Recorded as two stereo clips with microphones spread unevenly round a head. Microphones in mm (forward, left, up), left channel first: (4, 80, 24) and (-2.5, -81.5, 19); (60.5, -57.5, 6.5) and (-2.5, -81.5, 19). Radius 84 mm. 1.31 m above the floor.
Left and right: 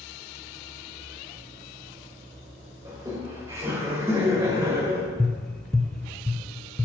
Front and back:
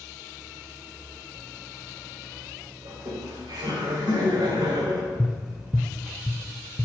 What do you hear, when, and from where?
2.9 s laughter: 165° right, 4 m
5.2 s tapping: 165° left, 0.5 m